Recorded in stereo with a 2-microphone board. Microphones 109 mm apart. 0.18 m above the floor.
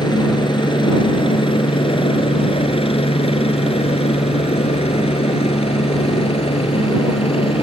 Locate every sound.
0.0 s a helicopter: 40° left (ahead or behind); by 7.6 s 55° left (ahead or behind)